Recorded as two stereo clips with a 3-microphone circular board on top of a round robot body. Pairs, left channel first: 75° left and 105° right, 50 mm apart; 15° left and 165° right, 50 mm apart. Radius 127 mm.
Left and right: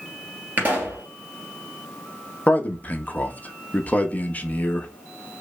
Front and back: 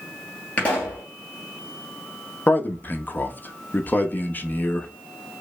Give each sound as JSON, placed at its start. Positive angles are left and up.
{"t": 0.6, "sound": "a pop", "azimuth_deg": -45, "distance_m": 2.5}
{"t": 2.5, "sound": "a man speaking", "azimuth_deg": 40, "distance_m": 1.0}